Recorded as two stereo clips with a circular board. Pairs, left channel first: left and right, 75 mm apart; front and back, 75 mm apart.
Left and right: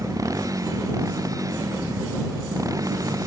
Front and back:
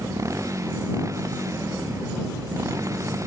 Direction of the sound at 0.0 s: 130° right.